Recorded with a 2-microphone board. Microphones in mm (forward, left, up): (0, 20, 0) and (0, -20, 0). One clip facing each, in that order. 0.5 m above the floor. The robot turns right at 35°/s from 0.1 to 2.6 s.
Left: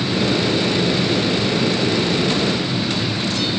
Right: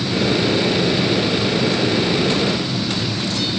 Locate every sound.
Only background noise.